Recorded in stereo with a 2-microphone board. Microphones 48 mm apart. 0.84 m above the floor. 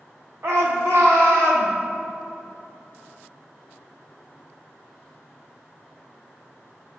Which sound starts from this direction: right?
A shout, at 0.4 s.